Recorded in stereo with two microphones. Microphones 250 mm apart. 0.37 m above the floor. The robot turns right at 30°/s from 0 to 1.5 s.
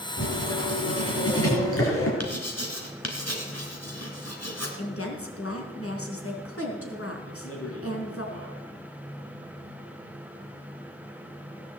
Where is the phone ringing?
No phone ringing in this recording.